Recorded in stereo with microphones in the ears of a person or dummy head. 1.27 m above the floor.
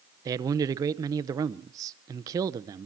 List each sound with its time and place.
0.2 s a man speaking: 20° right (ahead or behind), 0.8 m